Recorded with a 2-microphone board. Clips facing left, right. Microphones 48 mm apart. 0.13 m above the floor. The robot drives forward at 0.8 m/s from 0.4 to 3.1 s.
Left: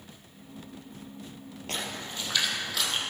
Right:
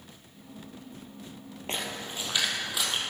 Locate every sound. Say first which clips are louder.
1.7 s a splash: right 1 dB; 25° right (ahead or behind), 1.4 m; by 3.0 s 15° right (ahead or behind), 2.5 m